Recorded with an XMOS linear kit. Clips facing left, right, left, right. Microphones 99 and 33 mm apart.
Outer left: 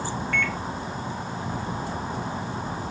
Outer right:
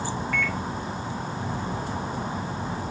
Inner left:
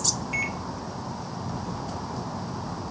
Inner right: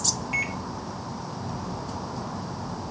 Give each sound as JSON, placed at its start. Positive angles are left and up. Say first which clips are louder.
{"t": 0.3, "sound": "a microwave", "louder": "outer left 1 dB, inner right 1 dB", "side_deg": -5, "distance_m": 1.1}